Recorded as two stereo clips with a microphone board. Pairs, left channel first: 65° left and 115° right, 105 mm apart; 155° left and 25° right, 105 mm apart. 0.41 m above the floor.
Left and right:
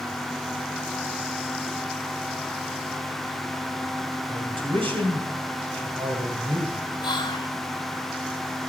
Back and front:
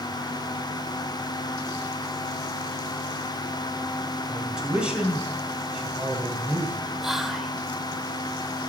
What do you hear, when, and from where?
4.3 s a man speaking: 105° right, 3 m
7.0 s whispering: 65° left, 1.0 m